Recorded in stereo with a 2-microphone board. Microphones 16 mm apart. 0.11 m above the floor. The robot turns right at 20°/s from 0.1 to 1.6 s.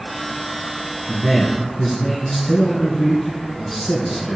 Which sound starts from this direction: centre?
A man speaking, at 1.1 s.